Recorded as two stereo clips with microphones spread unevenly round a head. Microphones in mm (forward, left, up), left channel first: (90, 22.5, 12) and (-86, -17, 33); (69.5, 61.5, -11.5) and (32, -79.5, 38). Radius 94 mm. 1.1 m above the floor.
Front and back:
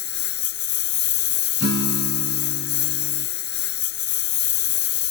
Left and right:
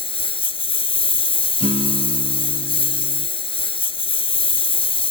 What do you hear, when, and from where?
0.0 s a lawn mower: 20° left
1.6 s a guitar: 140° right